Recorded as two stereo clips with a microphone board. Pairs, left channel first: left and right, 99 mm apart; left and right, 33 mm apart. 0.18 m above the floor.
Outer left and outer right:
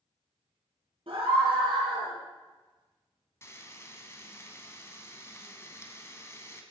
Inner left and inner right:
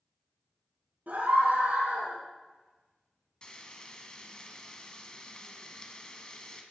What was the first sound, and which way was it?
A scream, 70° right (ahead or behind).